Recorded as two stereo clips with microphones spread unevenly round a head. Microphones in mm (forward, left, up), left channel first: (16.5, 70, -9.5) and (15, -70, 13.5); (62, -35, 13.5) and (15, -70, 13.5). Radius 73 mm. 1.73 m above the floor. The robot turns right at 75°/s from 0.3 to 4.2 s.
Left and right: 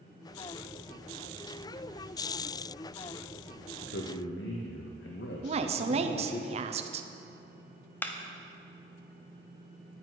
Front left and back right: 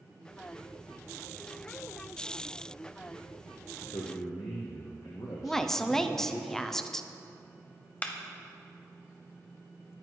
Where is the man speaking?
70° left, 0.8 m; by 6.4 s 100° left, 0.8 m.